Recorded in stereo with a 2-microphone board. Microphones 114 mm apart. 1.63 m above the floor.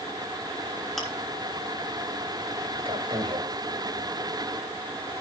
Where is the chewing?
5° left (ahead or behind), 3.5 m.